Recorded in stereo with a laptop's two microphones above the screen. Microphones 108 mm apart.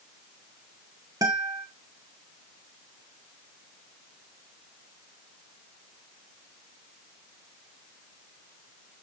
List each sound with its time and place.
1.2 s a guitar: 35° right (ahead or behind), 0.9 m